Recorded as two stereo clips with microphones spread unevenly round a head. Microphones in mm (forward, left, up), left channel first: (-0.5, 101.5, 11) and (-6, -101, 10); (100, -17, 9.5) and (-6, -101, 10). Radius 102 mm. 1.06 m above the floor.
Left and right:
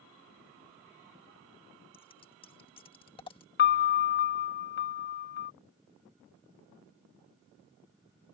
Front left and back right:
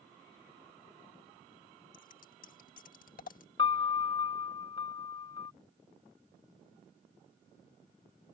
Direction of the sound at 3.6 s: 90° left.